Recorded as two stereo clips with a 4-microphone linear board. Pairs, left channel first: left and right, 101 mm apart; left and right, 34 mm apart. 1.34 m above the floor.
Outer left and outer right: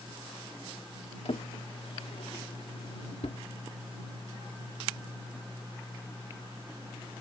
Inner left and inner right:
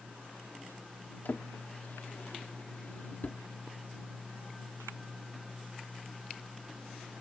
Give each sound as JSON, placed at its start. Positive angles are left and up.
{"t": 1.2, "sound": "a drawer", "side_deg": 75}